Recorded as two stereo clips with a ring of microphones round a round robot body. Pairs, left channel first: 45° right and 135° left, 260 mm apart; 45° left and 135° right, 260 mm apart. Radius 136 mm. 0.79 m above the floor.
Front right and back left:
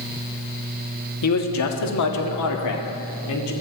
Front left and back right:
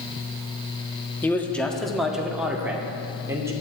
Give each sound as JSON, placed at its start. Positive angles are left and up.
{"t": 1.2, "sound": "a man speaking", "azimuth_deg": -35, "distance_m": 1.5}